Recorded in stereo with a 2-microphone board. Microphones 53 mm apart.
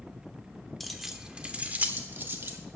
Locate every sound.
0.8 s keys jangling: centre (ahead or behind), 0.8 m; by 2.6 s 45° right (ahead or behind), 1.2 m